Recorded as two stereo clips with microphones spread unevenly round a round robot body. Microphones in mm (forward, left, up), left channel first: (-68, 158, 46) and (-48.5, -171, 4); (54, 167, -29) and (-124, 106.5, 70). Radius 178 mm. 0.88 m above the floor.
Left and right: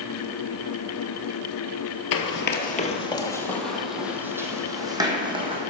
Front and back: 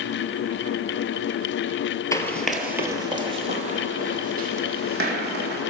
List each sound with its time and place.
2.1 s running footsteps: 115° left, 1.2 m; by 5.6 s 165° right, 3 m